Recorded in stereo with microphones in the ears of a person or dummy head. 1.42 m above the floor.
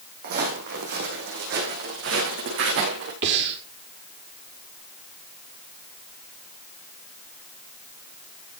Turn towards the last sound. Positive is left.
turn(degrees=-65)  # may be behind; listen again after turning